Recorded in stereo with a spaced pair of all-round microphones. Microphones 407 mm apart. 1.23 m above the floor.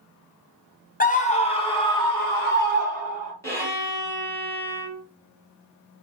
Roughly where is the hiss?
I don't hear a hiss.